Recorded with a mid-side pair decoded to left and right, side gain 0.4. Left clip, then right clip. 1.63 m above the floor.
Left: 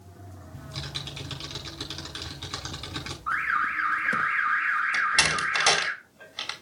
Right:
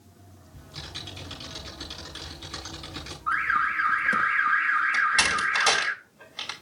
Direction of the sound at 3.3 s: 5° right.